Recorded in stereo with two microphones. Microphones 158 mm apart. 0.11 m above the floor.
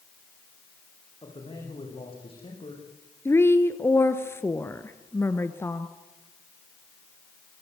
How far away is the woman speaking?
About 1.4 m.